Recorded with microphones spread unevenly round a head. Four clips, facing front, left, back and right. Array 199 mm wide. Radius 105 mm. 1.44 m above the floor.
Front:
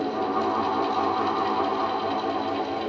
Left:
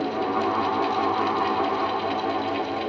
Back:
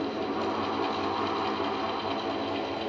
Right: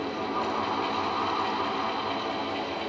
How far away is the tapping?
No tapping in this recording.